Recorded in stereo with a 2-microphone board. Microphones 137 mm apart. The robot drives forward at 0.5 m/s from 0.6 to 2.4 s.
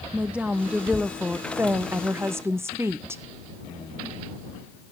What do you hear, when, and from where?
0.1 s a woman speaking: 10° right (ahead or behind), 0.9 m; by 3.2 s 20° right (ahead or behind), 0.5 m